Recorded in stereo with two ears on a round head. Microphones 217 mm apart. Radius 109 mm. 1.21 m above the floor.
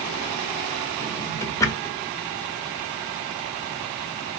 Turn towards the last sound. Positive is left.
turn(degrees=15)  # may be behind; listen again after turning